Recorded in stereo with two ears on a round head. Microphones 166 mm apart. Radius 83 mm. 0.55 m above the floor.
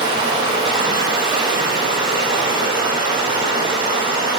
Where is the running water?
25° right (ahead or behind), 0.8 m.